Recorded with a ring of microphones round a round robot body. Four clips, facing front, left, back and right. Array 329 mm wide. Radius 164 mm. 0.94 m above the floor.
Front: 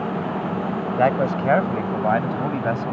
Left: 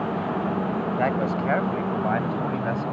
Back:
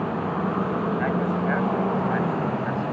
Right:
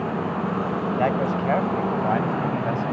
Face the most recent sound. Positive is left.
turn(degrees=-5)